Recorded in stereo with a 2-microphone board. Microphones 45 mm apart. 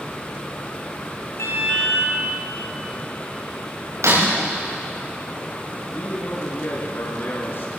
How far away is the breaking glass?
About 8 m.